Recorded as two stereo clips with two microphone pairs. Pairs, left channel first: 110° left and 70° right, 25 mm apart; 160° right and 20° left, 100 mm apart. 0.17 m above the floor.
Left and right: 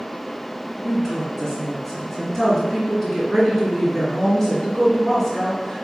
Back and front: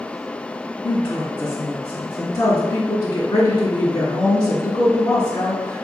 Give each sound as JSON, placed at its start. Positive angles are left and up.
{"t": 0.8, "sound": "a woman speaking", "azimuth_deg": 170, "distance_m": 1.6}